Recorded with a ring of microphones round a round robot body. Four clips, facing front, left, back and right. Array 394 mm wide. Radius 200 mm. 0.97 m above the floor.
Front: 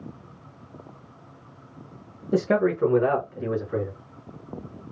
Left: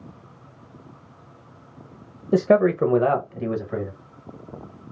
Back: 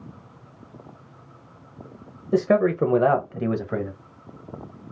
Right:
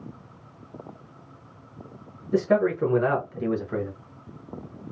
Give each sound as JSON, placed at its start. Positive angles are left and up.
{"t": 2.3, "sound": "a man speaking", "azimuth_deg": 90, "distance_m": 0.7}